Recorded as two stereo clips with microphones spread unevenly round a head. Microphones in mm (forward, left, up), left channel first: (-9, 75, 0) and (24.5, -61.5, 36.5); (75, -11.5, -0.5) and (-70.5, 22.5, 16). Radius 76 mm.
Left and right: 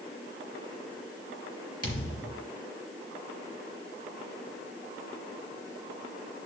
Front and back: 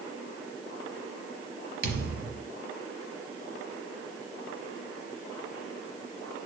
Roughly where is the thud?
Behind.